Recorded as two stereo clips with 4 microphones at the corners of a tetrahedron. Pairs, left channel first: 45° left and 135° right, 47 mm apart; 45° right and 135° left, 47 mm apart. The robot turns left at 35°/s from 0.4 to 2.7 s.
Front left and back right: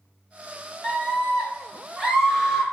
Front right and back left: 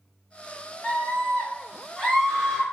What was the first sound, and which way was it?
A scream, 35° right.